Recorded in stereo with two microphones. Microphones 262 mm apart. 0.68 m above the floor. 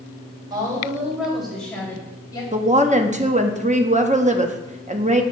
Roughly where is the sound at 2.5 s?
Right.